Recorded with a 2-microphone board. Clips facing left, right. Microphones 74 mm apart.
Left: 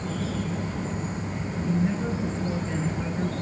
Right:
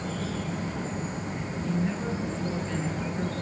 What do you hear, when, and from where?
1.6 s a woman speaking: 5° left (ahead or behind), 4 m